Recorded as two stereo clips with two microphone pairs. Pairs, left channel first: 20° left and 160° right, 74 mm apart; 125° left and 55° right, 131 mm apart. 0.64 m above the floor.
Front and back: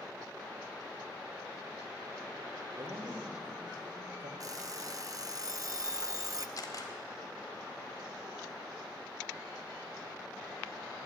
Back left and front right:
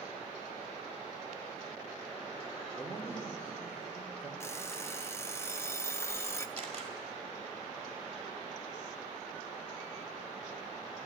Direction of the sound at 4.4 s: 175° right.